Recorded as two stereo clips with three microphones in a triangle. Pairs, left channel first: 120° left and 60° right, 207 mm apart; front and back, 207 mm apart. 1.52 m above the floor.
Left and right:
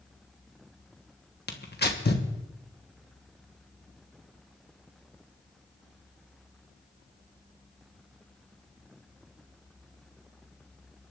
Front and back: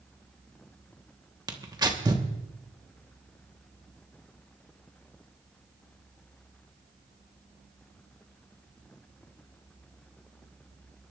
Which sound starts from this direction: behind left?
Tearing paper, at 1.5 s.